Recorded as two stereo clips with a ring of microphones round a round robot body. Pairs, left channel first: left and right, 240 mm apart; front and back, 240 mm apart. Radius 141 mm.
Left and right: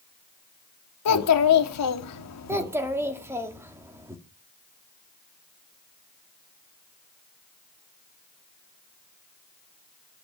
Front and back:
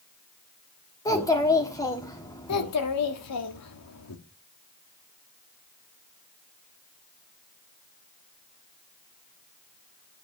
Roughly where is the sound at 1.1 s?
Left.